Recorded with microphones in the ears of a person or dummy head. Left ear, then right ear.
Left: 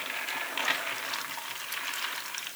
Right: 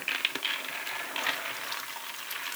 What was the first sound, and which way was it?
Only background noise.